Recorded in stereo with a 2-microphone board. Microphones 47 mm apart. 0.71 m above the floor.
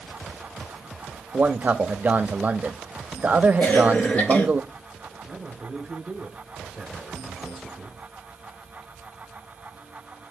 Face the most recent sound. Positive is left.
turn(degrees=-5)  # may be behind; listen again after turning